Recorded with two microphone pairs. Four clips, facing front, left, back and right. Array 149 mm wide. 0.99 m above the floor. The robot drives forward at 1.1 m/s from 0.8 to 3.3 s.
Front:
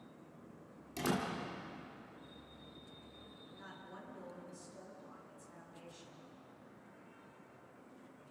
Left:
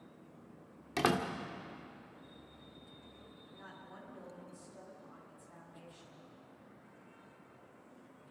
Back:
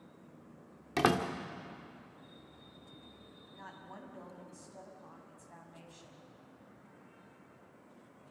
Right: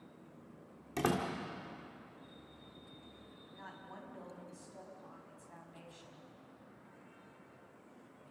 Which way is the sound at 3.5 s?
145° right.